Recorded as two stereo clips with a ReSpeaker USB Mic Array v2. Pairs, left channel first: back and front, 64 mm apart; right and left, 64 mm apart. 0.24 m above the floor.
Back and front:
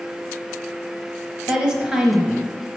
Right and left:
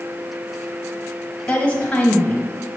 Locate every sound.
1.5 s a woman speaking: 60° right, 1.1 m